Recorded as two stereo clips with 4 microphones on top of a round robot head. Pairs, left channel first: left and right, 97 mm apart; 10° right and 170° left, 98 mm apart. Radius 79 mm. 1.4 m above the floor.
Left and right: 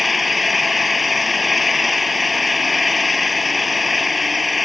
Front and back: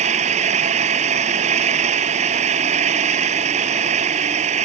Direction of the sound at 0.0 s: Straight behind.